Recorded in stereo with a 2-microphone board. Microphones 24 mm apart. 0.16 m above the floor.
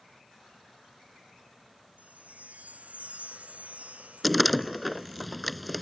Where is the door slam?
Centre (ahead or behind).